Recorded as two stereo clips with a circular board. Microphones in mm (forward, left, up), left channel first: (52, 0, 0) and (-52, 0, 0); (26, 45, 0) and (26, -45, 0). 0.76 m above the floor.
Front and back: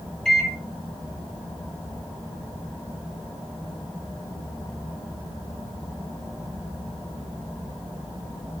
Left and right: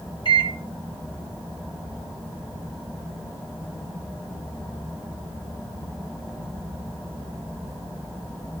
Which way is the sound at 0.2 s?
85° left.